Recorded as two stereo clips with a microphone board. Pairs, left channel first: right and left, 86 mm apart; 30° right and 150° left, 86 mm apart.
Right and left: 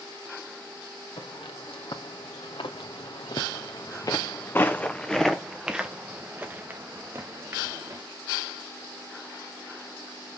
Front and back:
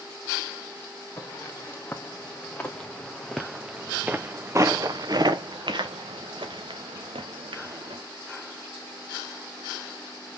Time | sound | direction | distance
1.2 | footsteps | 90° right | 2 m